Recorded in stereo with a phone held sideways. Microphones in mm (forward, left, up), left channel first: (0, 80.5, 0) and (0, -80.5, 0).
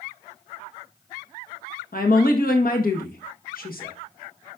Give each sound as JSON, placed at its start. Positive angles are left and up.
{"t": 1.9, "sound": "a woman speaking", "side_deg": 65, "distance_m": 1.3}